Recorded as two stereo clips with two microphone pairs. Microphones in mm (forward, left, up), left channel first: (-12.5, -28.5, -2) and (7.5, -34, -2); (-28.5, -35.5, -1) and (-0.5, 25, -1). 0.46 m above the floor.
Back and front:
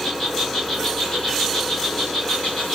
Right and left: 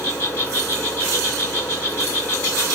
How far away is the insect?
About 1.8 m.